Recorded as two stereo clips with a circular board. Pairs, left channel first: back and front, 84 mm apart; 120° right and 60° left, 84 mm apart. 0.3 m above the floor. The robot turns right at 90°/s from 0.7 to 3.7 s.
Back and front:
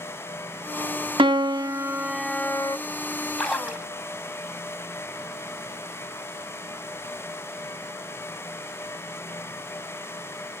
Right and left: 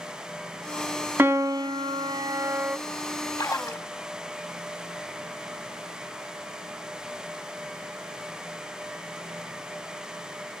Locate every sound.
1.2 s a piano: straight ahead, 0.6 m; by 2.8 s 140° left, 0.6 m
3.4 s a splash: 100° right, 2 m; by 3.9 s 75° right, 2 m